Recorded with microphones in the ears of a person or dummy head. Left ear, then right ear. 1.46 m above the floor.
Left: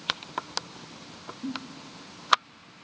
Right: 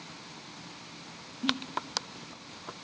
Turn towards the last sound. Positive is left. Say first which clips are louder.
# right 8 dB
turn(degrees=-60)  # may be behind; listen again after turning